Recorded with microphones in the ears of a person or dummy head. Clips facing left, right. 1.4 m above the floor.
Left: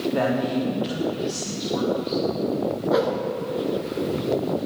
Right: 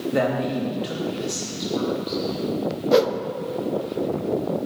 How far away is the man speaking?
About 2.5 m.